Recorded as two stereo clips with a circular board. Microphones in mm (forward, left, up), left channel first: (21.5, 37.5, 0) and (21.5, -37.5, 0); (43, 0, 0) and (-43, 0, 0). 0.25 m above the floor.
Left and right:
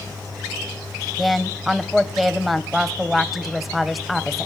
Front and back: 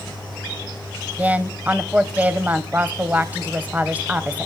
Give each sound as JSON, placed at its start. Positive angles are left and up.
{"t": 1.2, "sound": "a woman speaking", "azimuth_deg": 180, "distance_m": 0.9}